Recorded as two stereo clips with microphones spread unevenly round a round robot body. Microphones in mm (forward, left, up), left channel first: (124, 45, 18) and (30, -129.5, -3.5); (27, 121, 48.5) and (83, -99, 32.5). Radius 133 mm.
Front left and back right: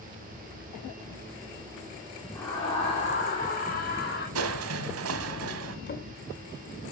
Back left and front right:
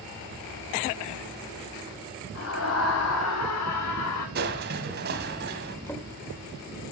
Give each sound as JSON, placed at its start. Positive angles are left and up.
{"t": 2.4, "sound": "a scream", "azimuth_deg": 145, "distance_m": 2.5}
{"t": 4.3, "sound": "crushing", "azimuth_deg": -135, "distance_m": 1.2}
{"t": 5.9, "sound": "a drawer", "azimuth_deg": 25, "distance_m": 2.0}